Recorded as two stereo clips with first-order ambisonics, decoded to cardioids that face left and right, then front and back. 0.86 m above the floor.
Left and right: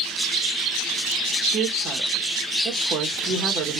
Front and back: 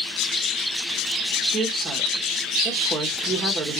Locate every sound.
1.5 s a woman speaking: 125° right, 0.7 m